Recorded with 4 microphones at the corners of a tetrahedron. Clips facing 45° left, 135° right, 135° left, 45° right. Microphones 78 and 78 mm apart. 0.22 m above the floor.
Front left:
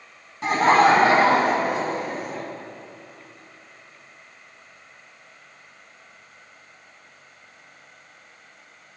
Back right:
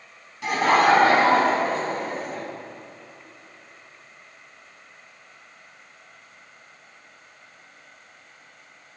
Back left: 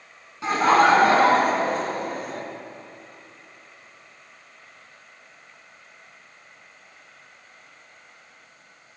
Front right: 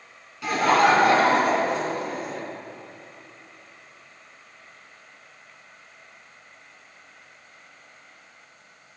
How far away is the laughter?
About 2 m.